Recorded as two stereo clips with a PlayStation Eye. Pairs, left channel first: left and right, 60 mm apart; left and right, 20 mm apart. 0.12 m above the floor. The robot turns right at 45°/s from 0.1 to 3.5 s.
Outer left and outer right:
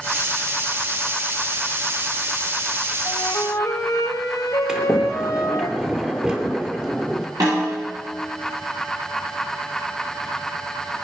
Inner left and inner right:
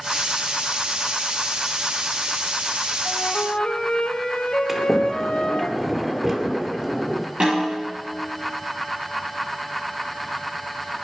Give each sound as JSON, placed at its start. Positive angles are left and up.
{"t": 3.0, "sound": "a flute", "side_deg": 60, "distance_m": 2.5}
{"t": 4.7, "sound": "a sliding door", "side_deg": -15, "distance_m": 2.0}
{"t": 7.4, "sound": "a snare drum", "side_deg": -75, "distance_m": 9.0}